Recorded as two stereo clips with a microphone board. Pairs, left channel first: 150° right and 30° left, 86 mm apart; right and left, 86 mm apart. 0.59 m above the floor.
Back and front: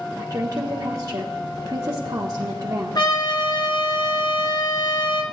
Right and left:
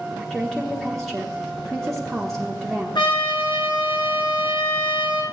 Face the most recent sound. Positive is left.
turn(degrees=-115)